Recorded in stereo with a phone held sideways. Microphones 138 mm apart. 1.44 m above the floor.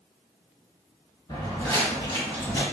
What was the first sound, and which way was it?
Footsteps, 30° left (ahead or behind).